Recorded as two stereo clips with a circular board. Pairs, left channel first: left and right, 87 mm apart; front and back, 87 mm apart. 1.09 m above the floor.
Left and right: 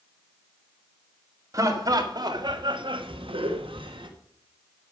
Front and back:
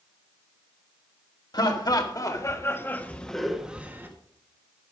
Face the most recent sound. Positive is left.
turn(degrees=-115)